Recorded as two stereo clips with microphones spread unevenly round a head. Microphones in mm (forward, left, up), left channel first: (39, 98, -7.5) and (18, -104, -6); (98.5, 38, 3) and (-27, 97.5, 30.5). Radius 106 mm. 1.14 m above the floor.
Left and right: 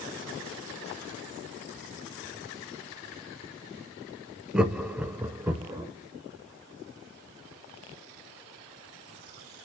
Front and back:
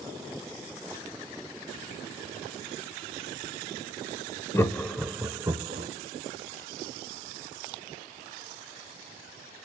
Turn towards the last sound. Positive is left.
turn(degrees=-165)